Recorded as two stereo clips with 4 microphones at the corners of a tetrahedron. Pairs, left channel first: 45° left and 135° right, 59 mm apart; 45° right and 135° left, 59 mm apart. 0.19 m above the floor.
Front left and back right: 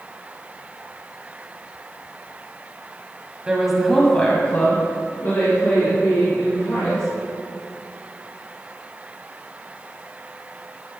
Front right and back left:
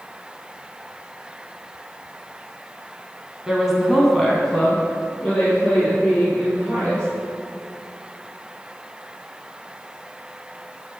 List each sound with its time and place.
3.5 s a woman speaking: 165° right, 1.3 m; by 7.0 s 25° left, 4 m